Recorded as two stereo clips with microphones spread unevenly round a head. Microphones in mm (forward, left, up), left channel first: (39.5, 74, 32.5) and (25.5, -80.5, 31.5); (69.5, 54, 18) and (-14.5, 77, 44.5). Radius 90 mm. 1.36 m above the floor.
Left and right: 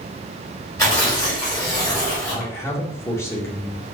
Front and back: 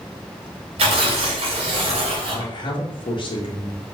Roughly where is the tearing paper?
Behind.